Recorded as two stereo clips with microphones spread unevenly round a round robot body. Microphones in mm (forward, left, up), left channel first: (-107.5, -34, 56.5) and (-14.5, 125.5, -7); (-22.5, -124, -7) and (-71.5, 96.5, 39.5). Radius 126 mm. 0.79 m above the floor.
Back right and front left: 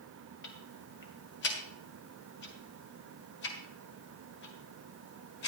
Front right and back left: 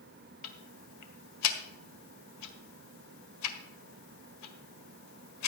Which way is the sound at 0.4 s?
75° right.